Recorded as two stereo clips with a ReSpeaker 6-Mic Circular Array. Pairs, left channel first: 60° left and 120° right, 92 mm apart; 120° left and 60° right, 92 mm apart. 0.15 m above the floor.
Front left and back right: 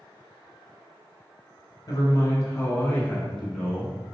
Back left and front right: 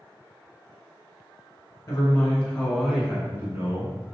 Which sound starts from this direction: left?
A man speaking, at 1.9 s.